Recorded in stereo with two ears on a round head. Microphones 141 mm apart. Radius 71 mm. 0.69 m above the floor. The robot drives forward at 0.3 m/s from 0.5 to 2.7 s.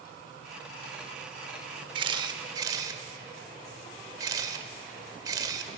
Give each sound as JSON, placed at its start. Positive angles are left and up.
{"t": 1.9, "sound": "a camera shutter", "side_deg": -30, "distance_m": 0.6}